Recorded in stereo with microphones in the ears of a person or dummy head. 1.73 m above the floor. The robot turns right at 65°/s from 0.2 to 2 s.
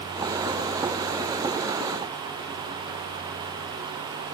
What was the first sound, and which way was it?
Only background noise.